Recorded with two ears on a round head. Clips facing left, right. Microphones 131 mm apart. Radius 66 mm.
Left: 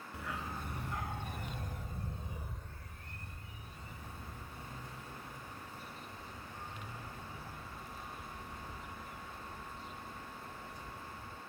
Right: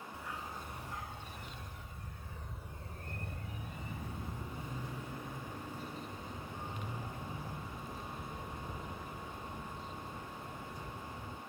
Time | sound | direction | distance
0.1 | a dog barking | 60° left (ahead or behind) | ?